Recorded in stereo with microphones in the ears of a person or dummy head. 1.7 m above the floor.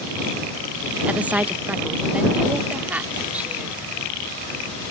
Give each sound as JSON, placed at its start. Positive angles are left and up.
{"t": 1.1, "sound": "a woman speaking", "side_deg": -5}